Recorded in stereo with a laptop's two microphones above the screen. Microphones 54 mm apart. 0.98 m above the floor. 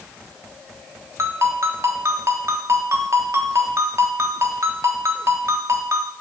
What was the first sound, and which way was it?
A ringtone, 60° right (ahead or behind).